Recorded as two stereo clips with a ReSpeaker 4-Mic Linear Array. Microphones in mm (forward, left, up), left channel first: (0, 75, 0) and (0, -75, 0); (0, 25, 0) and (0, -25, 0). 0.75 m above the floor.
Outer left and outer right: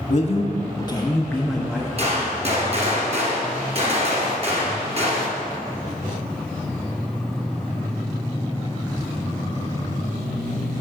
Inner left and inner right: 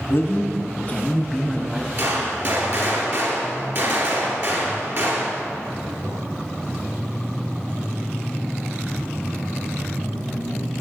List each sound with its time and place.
0.1 s a man speaking: 55° left (ahead or behind), 1.1 m; by 1.9 s 10° right (ahead or behind), 0.9 m
2.0 s a gunshot: 45° right (ahead or behind), 2.5 m